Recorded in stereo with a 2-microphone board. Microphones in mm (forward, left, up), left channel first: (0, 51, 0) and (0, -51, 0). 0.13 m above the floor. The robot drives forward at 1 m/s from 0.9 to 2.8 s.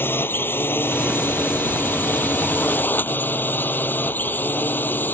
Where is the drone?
20° left (ahead or behind).